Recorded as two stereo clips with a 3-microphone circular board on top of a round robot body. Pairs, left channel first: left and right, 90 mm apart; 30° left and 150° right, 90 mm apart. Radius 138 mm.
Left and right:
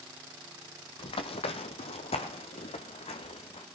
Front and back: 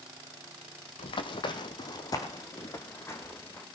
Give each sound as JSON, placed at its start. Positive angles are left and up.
{"t": 1.0, "sound": "running footsteps", "azimuth_deg": 60, "distance_m": 1.1}